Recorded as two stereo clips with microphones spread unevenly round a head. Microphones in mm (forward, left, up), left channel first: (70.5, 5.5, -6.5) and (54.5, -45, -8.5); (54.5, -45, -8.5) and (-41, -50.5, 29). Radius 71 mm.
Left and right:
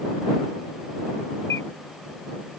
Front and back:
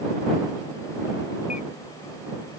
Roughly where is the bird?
Ahead left.